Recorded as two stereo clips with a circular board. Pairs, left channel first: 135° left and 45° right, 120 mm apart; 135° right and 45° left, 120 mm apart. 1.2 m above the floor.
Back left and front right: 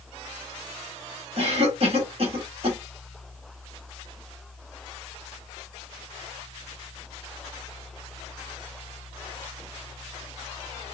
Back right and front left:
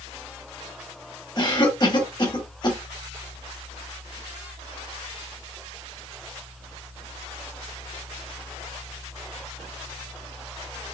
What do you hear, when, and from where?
1.4 s a cough: 85° right, 1.3 m